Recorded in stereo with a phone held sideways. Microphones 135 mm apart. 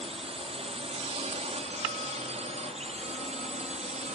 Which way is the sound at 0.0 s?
45° right (ahead or behind).